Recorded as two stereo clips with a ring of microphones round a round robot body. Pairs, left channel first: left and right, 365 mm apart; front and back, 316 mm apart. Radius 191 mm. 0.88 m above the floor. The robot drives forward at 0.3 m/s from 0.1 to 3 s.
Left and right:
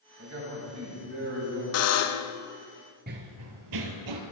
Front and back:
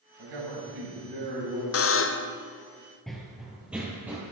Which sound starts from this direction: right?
Running footsteps, at 3.1 s.